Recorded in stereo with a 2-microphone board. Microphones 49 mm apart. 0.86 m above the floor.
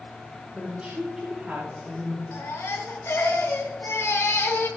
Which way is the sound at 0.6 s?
30° right (ahead or behind).